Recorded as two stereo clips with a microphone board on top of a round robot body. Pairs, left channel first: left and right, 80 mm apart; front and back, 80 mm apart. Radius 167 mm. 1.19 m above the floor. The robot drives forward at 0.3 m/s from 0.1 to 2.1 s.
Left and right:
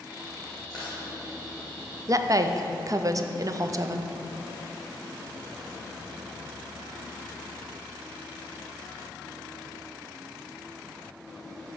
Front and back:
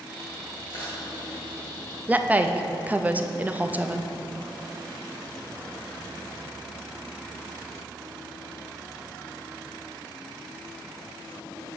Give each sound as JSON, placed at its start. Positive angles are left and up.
{"t": 0.7, "sound": "crushing", "azimuth_deg": -5, "distance_m": 0.9}
{"t": 2.1, "sound": "a woman speaking", "azimuth_deg": -115, "distance_m": 0.6}